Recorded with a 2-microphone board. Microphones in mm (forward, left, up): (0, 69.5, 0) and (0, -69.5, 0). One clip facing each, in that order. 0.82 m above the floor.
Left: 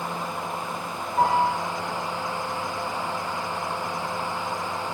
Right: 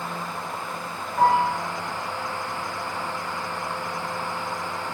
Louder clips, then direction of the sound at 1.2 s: Right 2 dB; 60° left (ahead or behind).